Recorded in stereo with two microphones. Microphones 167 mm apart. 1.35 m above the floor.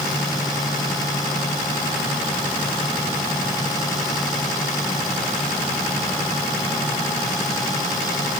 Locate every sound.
Only background noise.